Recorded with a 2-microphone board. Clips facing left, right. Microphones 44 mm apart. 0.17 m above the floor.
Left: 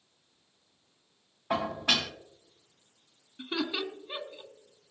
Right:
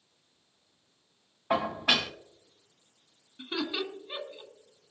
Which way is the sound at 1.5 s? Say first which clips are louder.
Right 2 dB; 10° right (ahead or behind).